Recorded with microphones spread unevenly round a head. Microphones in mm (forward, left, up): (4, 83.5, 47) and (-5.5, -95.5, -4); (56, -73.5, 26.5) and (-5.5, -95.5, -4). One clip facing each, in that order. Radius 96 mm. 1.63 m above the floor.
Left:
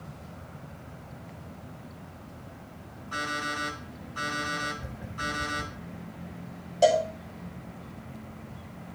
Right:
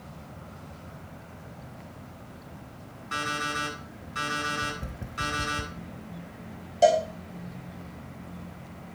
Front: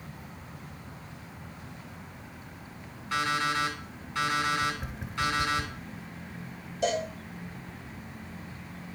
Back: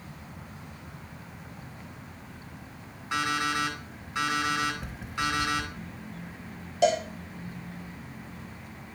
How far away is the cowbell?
About 2.5 m.